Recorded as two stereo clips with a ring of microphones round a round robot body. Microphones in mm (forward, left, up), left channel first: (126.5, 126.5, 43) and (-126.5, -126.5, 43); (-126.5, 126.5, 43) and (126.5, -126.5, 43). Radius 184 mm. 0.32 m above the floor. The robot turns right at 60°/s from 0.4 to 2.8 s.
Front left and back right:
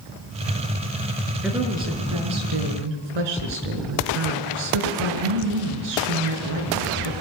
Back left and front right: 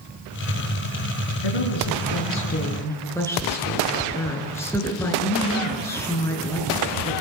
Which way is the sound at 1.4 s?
135° left.